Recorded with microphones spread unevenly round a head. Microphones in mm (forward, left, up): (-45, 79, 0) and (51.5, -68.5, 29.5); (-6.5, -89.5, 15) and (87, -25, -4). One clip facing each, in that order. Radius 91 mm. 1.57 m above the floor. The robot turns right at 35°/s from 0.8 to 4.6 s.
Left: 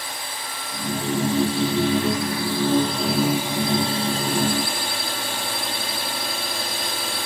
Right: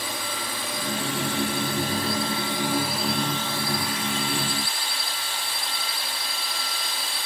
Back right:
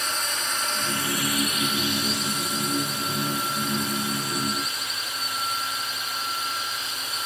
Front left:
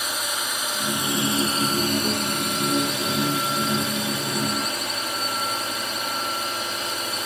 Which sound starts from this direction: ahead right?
A drone, at 0.0 s.